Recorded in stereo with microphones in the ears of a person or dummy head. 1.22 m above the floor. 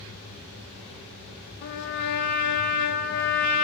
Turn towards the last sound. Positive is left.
turn(degrees=55)  # may be behind; listen again after turning